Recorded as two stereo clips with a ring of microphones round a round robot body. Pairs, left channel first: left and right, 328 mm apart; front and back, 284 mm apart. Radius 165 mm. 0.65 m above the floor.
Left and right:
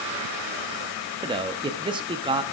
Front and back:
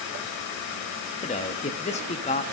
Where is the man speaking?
35° right, 0.6 m.